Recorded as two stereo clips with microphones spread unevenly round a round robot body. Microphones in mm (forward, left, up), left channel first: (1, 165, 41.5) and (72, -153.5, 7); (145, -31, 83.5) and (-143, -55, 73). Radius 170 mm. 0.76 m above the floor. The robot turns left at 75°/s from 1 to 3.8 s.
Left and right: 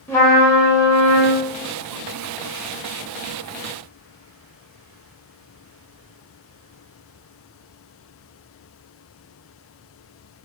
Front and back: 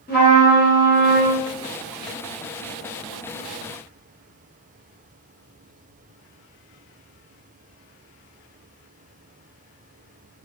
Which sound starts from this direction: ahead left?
A trumpet, at 0.1 s.